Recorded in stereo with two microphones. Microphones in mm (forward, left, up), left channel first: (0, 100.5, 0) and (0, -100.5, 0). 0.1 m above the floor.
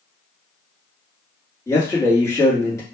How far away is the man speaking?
About 1.4 m.